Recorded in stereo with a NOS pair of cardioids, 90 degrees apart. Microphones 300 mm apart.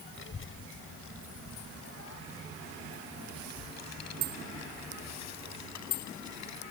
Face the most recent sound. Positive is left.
turn(degrees=65)